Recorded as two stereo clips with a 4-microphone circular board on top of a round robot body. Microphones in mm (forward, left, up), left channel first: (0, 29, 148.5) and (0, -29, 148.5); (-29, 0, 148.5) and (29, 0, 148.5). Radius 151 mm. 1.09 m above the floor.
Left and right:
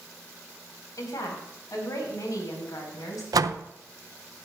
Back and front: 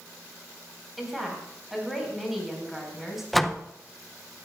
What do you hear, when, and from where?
1.0 s a woman speaking: 85° left, 4.5 m
3.3 s a door slam: 90° right, 0.5 m